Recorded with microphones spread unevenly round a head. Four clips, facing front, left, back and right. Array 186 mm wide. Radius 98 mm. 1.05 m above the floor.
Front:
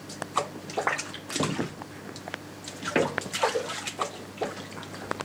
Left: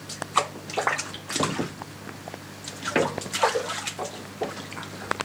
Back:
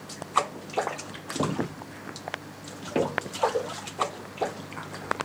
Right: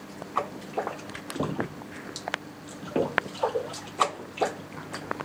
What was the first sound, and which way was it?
Only background noise.